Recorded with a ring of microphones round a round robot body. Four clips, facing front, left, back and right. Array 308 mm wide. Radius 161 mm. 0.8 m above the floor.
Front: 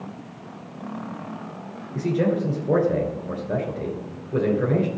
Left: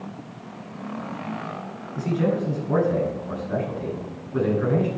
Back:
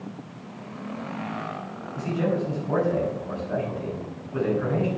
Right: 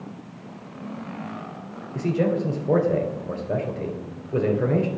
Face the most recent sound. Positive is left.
turn(degrees=-50)